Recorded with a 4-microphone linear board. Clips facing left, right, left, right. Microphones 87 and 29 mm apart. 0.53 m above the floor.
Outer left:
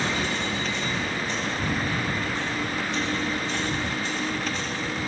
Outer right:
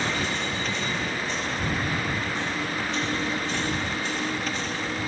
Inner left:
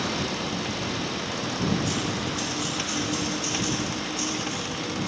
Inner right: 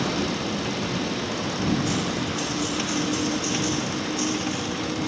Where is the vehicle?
Centre (ahead or behind); by 5.1 s 5° right (ahead or behind).